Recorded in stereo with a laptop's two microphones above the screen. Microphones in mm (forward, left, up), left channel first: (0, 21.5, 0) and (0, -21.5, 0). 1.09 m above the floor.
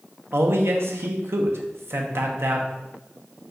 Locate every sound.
0.3 s a man speaking: 70° right (ahead or behind), 0.5 m